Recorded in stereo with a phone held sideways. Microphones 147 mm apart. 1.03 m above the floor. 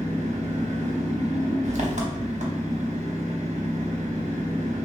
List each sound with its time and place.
0.0 s an engine running: 50° right (ahead or behind), 0.9 m